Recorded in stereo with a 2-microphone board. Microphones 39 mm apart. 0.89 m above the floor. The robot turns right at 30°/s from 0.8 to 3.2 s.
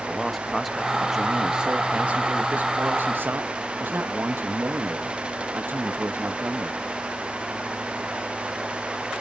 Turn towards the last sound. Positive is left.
turn(degrees=-110)